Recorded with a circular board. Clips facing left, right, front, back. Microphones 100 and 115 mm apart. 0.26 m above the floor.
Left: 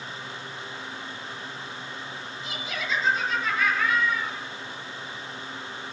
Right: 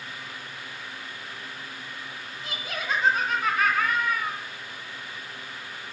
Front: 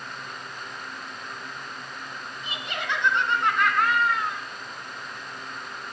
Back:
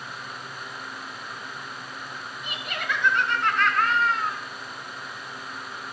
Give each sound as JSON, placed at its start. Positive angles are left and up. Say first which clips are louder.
{"t": 2.4, "sound": "laughter", "louder": "right 1 dB, even", "azimuth_deg": -55, "distance_m": 3.0}